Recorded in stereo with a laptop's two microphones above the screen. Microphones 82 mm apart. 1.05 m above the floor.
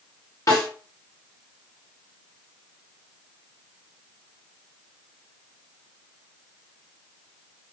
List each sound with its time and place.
0.5 s a snare drum: 45° left (ahead or behind), 1.6 m